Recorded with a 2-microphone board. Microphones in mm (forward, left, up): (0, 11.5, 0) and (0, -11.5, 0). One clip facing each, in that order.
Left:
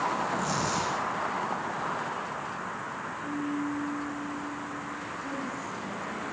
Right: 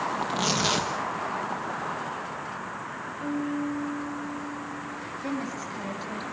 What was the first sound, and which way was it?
Tearing paper, 75° right (ahead or behind).